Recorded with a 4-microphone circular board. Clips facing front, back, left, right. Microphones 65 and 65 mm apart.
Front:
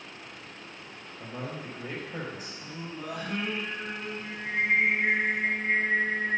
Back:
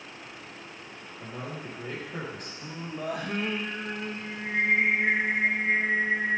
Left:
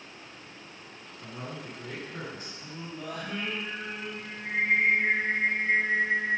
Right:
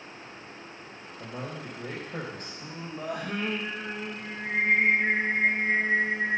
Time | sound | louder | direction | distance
1.2 | a man speaking | front 1 dB, right 2 dB | 80° right | 3.5 m
2.6 | singing | back 6 dB, right 4 dB | 140° right | 2.5 m